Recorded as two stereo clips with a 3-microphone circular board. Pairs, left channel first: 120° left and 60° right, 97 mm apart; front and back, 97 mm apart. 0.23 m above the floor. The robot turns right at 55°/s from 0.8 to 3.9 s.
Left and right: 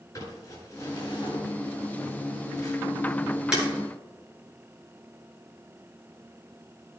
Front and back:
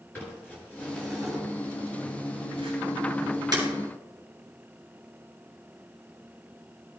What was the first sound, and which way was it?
Crumpling, 70° left.